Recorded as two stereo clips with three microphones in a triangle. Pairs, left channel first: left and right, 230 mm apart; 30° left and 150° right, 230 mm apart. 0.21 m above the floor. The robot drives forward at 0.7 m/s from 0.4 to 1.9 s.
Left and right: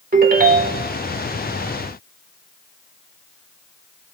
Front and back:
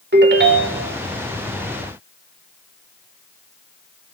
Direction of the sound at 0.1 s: 130° right.